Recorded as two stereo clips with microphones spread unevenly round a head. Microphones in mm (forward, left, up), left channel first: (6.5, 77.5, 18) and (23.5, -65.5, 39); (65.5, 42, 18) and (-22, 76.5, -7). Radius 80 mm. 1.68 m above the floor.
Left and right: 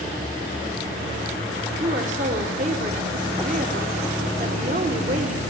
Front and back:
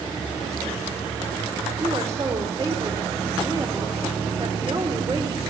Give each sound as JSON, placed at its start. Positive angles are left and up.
{"t": 1.8, "sound": "a woman speaking", "azimuth_deg": -125, "distance_m": 1.4}